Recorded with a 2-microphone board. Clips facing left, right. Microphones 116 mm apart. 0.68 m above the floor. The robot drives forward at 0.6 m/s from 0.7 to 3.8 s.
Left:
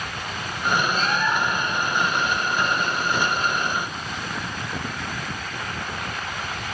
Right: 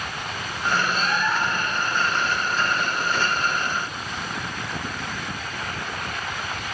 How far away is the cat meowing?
About 1.8 m.